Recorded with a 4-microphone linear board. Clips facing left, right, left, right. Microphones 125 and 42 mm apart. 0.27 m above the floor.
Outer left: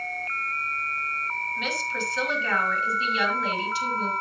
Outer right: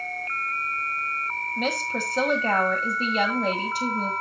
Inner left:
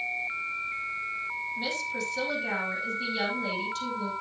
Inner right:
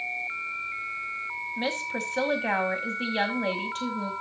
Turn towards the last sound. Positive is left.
turn(degrees=-45)  # may be behind; listen again after turning